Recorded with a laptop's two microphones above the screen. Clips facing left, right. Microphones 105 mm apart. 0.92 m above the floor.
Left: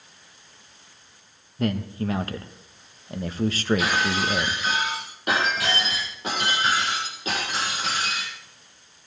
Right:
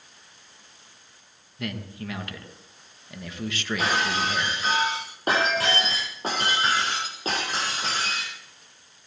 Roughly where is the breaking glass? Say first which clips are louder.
Left 1 dB; right.